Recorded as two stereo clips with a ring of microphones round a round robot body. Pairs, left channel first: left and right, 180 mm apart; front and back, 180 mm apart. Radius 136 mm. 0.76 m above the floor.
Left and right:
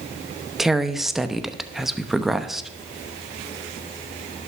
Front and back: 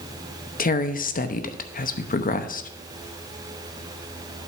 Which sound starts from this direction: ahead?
A woman speaking, at 0.6 s.